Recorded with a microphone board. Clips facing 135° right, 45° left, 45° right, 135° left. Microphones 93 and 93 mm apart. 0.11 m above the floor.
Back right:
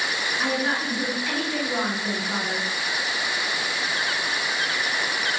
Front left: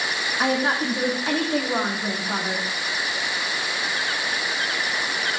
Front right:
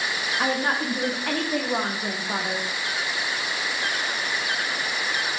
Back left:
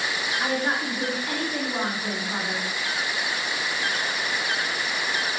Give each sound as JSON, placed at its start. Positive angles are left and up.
{"t": 0.4, "sound": "a woman speaking", "azimuth_deg": -5, "distance_m": 5.5}